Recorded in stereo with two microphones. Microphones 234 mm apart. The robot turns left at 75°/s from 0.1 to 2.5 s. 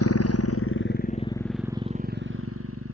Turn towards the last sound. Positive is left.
turn(degrees=-70)  # may be behind; listen again after turning